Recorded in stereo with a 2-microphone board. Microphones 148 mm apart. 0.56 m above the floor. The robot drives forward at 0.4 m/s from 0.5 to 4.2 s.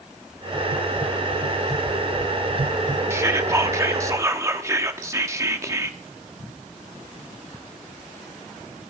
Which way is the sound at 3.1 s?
20° right (ahead or behind).